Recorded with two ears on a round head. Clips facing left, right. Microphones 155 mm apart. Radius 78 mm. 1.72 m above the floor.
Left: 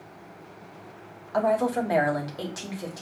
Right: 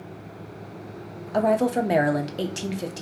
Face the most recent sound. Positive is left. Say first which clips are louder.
# right 3 dB
turn(degrees=-30)  # may be behind; listen again after turning